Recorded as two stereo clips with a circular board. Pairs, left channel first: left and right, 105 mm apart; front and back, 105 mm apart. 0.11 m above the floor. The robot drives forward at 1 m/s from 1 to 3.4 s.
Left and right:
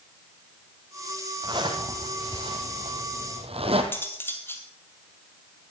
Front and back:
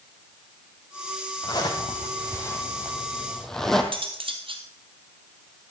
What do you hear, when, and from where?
1.4 s a zipper: 45° right, 3 m; by 3.8 s 85° right, 2 m
3.9 s cutlery clinking: 155° left, 2 m